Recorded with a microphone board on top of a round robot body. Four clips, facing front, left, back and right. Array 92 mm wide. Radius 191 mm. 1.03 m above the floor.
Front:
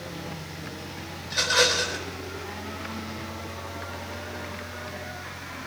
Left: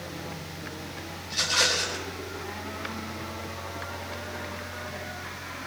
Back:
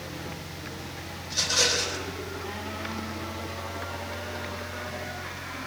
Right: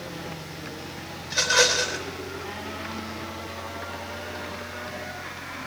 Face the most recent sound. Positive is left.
turn(degrees=-65)